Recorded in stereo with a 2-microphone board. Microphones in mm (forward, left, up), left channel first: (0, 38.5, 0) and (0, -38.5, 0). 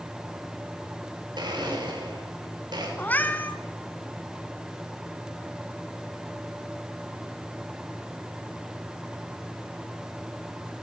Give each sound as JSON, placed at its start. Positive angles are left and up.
{"t": 1.4, "sound": "a blender", "side_deg": -70, "distance_m": 6.5}
{"t": 3.0, "sound": "a cat meowing", "side_deg": 20, "distance_m": 2.0}